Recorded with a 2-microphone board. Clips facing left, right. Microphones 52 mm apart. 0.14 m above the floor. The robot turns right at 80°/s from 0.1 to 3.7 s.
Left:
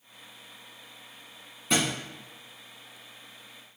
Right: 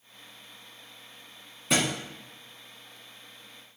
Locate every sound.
1.7 s a thud: 5° right (ahead or behind), 1.6 m; by 1.9 s 25° right (ahead or behind), 1.6 m